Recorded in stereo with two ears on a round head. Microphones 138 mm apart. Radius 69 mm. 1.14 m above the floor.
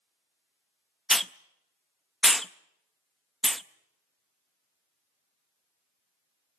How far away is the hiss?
About 0.6 m.